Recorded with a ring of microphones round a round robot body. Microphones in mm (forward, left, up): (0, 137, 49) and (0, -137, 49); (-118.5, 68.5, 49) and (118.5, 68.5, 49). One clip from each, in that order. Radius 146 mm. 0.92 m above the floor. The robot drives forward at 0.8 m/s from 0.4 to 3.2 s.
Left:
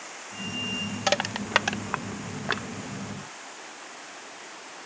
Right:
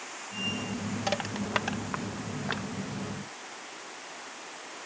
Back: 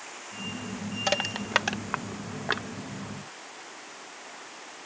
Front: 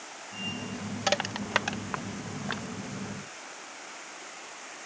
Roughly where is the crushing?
Left.